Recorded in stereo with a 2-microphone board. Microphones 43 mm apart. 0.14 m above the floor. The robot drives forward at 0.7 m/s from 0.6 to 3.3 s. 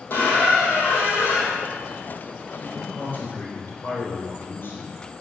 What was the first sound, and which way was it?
A squeak, 50° left (ahead or behind).